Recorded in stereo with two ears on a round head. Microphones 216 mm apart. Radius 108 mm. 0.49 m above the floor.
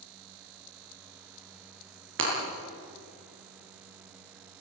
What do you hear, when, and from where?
2.2 s breaking glass: 55° right (ahead or behind), 8 m